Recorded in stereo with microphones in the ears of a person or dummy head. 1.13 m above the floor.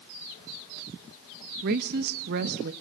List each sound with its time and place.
1.6 s a woman speaking: 50° right (ahead or behind), 0.8 m